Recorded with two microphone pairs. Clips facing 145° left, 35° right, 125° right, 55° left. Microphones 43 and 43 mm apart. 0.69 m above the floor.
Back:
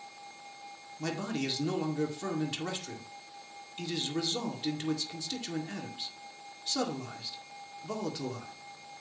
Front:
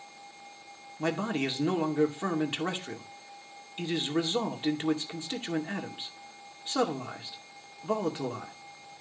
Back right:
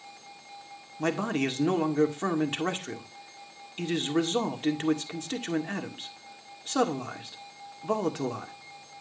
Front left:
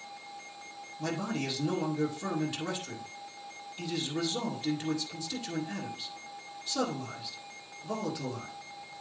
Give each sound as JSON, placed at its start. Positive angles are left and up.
{"t": 1.0, "sound": "a man speaking", "azimuth_deg": -90, "distance_m": 1.9}